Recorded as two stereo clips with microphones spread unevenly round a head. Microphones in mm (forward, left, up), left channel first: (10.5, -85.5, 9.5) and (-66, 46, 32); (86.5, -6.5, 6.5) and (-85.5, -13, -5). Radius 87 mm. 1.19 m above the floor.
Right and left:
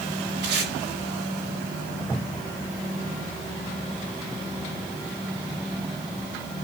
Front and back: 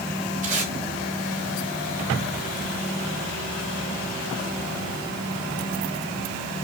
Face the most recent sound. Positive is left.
turn(degrees=130)